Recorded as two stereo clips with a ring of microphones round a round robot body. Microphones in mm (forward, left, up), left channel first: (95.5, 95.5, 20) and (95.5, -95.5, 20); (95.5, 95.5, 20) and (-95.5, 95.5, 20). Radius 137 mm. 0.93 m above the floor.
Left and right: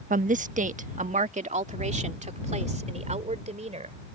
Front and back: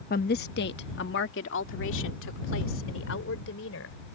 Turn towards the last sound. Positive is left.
turn(degrees=-35)